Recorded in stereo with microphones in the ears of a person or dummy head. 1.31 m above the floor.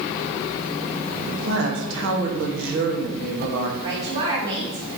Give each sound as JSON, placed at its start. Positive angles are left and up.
{"t": 1.3, "sound": "a woman speaking", "side_deg": -75, "distance_m": 1.9}
{"t": 3.8, "sound": "a woman speaking", "side_deg": -30, "distance_m": 4.0}